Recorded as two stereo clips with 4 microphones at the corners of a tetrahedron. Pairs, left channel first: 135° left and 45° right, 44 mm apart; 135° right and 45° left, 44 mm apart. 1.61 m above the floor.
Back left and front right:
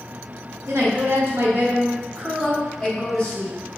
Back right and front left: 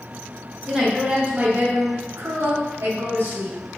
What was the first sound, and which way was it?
A woman speaking, 30° right.